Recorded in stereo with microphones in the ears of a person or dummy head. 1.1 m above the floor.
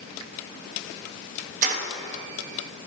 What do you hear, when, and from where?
1.6 s keys jangling: 45° right (ahead or behind), 1.0 m